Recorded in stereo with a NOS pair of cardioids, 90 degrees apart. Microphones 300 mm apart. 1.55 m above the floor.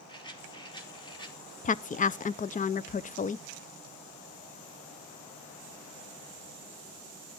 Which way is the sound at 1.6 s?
30° left.